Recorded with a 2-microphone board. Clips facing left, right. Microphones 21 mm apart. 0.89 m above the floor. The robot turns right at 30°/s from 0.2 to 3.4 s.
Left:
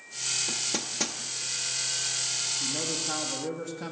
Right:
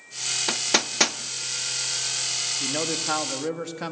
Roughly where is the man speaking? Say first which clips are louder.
Right 4 dB; right.